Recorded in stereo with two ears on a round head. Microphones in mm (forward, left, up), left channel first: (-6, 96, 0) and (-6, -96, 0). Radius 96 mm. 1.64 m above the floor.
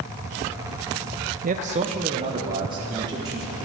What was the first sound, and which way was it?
A man speaking, 35° right (ahead or behind).